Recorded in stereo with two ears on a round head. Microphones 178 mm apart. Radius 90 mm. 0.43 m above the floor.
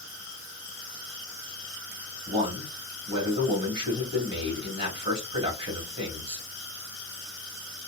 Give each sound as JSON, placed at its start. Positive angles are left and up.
{"t": 2.3, "sound": "a man speaking", "side_deg": -30, "distance_m": 2.0}